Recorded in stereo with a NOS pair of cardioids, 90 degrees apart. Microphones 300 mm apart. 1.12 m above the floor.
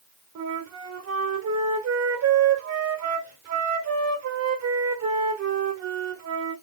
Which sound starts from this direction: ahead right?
A flute, at 0.3 s.